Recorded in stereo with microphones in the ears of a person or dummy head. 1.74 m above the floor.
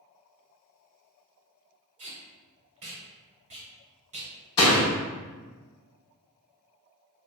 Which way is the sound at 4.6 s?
30° left (ahead or behind).